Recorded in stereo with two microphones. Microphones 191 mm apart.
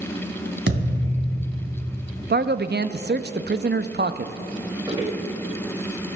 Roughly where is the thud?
Right.